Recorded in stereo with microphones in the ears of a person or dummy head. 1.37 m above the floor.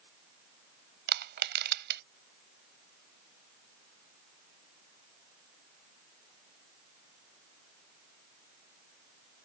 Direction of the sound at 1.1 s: 65° right (ahead or behind).